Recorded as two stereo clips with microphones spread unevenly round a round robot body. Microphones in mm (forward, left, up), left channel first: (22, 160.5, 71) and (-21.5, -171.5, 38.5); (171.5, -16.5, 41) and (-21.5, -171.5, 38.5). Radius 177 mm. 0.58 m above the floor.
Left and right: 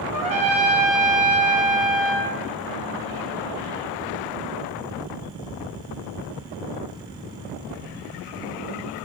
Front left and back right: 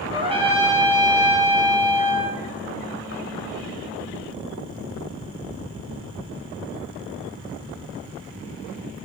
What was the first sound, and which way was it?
A trumpet, 75° right.